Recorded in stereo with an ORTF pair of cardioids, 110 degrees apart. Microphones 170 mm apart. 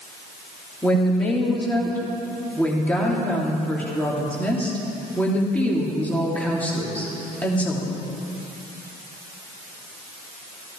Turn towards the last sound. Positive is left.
turn(degrees=10)